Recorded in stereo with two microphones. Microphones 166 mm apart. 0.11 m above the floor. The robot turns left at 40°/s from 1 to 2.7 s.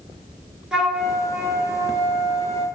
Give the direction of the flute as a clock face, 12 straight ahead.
12 o'clock.